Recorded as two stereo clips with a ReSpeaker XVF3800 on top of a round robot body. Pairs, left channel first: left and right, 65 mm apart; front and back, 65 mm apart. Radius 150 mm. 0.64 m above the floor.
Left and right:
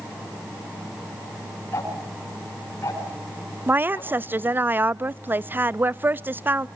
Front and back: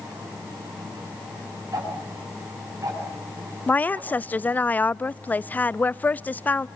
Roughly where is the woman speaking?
Ahead right.